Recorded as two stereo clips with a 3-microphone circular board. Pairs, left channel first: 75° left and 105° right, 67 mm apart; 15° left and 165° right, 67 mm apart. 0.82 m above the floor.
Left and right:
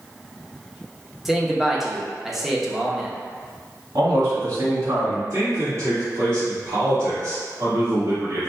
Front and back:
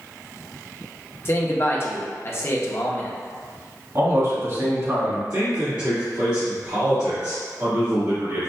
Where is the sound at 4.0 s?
130° right, 1.8 m.